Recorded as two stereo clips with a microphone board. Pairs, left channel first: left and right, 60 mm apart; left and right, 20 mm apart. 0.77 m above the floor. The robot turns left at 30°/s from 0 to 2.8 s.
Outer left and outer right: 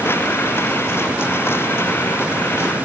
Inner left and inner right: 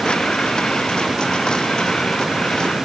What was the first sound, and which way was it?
Only background noise.